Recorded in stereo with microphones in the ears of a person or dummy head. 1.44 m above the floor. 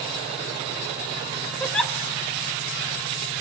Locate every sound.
1.6 s a giggle: 5° left (ahead or behind), 1.1 m